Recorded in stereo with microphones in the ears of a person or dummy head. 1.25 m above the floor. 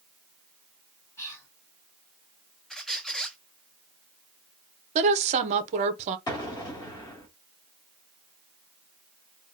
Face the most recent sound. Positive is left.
turn(degrees=20)  # may be behind; listen again after turning